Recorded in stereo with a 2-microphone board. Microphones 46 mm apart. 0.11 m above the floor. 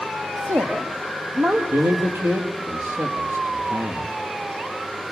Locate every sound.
0.4 s a woman speaking: 65° right (ahead or behind), 4 m; by 1.6 s 50° right (ahead or behind), 4 m
1.7 s a man speaking: 55° right (ahead or behind), 4 m